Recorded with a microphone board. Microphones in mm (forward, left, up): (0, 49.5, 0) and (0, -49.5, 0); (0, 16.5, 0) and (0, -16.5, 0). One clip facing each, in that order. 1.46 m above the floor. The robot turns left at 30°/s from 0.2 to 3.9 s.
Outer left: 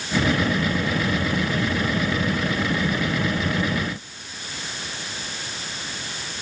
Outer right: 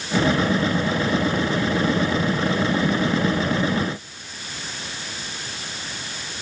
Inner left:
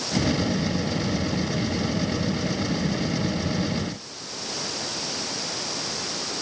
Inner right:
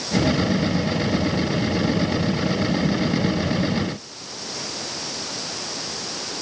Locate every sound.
Only background noise.